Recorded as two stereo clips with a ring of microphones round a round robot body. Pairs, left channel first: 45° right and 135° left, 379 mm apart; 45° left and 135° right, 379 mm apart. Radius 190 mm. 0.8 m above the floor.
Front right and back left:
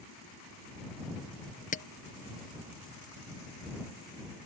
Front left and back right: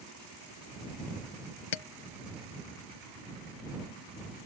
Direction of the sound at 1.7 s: 25° left.